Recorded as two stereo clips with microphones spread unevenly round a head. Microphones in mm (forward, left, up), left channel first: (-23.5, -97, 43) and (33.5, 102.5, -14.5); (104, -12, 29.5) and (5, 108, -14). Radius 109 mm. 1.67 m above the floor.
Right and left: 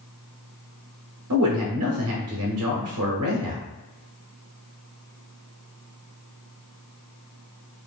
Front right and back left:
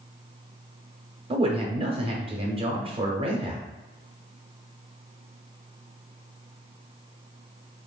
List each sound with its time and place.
1.3 s a man speaking: 75° left, 1.0 m